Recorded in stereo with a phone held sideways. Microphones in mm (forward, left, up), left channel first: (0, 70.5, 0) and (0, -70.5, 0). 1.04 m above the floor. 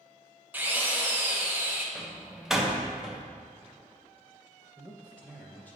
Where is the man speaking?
15° right (ahead or behind), 0.6 m.